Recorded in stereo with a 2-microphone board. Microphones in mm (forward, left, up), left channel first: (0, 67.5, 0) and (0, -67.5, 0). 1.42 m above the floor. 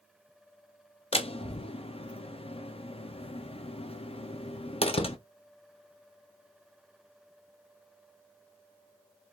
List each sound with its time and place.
1.1 s a door slam: 45° left (ahead or behind), 0.8 m